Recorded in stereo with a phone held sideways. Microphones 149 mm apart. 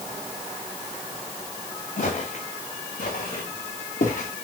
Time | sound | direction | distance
2.0 | footsteps | 65° left (ahead or behind) | 4.5 m